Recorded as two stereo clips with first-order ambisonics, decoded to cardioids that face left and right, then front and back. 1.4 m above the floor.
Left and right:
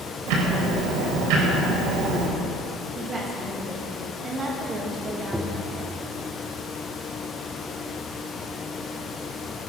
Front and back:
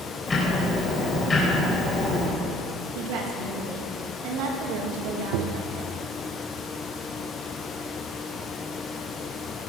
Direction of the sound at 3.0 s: 160° right.